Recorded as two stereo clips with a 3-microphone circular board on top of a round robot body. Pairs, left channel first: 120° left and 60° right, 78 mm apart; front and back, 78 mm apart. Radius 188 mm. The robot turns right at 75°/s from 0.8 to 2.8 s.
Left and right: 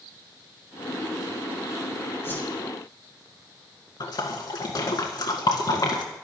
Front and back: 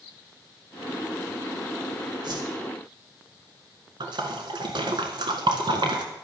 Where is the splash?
155° left, 1.7 m.